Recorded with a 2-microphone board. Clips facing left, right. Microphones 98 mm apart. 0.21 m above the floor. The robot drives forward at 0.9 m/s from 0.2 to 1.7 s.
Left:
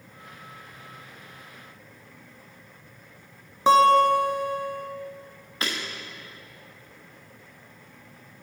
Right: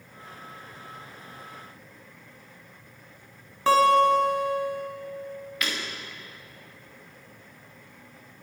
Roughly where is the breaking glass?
Left.